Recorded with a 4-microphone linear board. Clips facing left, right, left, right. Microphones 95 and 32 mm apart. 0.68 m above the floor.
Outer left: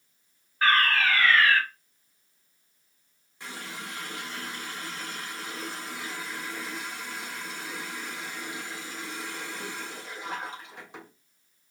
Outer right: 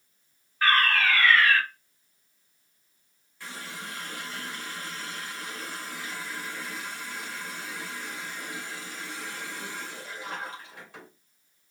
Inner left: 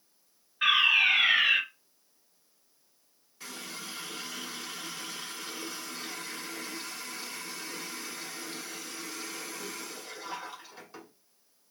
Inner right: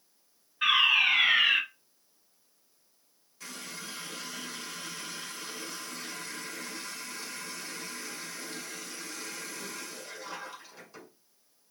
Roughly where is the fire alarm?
Centre.